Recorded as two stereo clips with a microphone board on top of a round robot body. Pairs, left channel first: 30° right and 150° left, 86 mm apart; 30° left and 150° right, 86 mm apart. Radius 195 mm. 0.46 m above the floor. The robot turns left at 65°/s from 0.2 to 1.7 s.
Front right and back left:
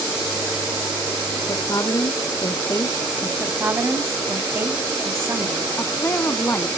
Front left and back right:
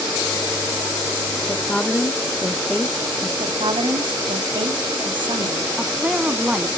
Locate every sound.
1.5 s a woman speaking: 10° right, 1.2 m; by 3.3 s 25° right, 1.2 m
3.4 s a woman speaking: 150° right, 1.7 m
5.8 s a woman speaking: 80° right, 1.3 m